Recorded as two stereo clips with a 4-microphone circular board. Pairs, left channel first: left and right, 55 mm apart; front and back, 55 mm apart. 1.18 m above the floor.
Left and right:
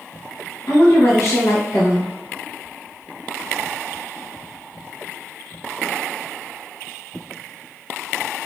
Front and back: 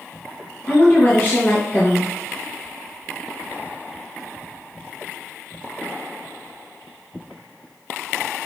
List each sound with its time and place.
0.7 s a woman speaking: 55° left, 1.0 m